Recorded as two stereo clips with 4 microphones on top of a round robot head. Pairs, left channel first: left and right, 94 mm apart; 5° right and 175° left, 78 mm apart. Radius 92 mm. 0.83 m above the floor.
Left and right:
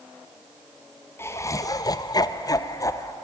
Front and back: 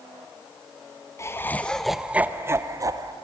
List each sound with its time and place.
1.2 s laughter: 35° left, 1.3 m; by 3.1 s 140° left, 1.9 m